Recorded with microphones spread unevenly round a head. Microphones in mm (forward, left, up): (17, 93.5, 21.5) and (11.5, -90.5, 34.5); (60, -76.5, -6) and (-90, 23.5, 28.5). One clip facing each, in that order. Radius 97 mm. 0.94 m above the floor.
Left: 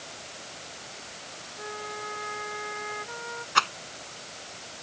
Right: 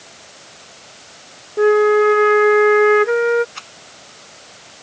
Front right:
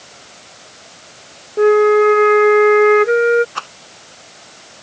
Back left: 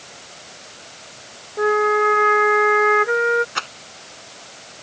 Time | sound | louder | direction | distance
1.6 | a flute | right 29 dB, front right 9 dB | 85° right | ?
3.5 | a rattle | left 12 dB, front right 1 dB | 75° left | ?